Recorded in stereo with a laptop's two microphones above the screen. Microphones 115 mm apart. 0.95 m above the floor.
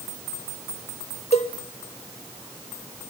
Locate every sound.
1.3 s a cowbell: 65° left (ahead or behind), 0.9 m